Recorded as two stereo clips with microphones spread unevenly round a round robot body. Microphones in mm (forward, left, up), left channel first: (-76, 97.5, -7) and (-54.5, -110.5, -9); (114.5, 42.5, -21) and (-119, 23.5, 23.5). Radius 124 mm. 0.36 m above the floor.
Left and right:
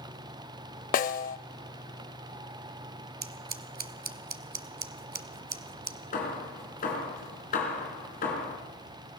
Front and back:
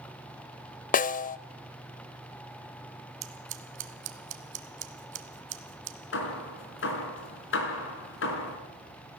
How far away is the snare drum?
About 0.5 m.